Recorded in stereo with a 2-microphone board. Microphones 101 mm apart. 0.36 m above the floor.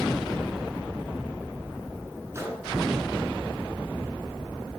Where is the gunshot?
30° right (ahead or behind), 2.5 m.